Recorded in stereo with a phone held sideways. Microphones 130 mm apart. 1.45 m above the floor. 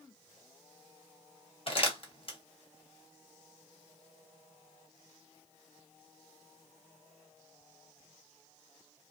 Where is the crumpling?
45° left (ahead or behind), 1.0 m.